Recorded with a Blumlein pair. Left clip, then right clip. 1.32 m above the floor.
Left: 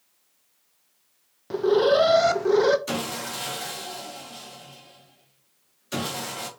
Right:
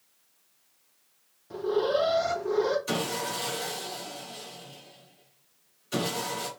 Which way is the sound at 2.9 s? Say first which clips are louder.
Even; 20° left.